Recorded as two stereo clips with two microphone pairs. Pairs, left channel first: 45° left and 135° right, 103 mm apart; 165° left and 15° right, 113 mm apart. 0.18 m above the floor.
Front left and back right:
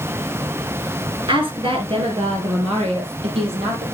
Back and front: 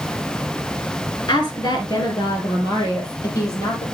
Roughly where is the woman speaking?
Behind right.